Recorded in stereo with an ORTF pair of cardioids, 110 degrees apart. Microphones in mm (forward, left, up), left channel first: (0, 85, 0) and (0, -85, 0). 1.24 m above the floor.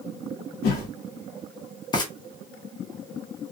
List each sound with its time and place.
0.6 s a whoosh: 70° left, 0.9 m
1.9 s frying: 25° left, 1.0 m